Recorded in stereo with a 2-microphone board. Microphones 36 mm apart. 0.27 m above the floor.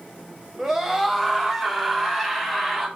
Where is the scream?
5° right (ahead or behind), 1.2 m.